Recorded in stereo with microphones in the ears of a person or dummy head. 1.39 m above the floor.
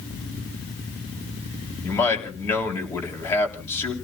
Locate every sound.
1.8 s a man speaking: 15° left (ahead or behind), 3.5 m